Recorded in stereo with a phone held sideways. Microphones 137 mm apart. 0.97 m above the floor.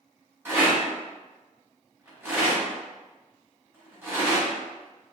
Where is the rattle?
15° right (ahead or behind), 1.0 m.